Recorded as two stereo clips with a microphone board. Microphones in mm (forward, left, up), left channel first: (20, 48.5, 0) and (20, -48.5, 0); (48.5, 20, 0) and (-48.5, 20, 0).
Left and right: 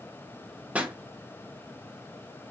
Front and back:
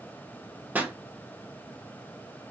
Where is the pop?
140° right, 0.7 m.